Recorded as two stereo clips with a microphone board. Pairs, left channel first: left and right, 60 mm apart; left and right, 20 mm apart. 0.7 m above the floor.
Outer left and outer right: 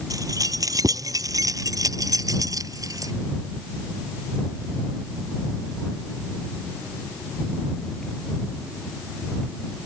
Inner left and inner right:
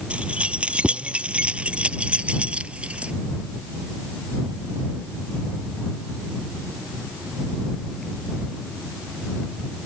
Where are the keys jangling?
85° right.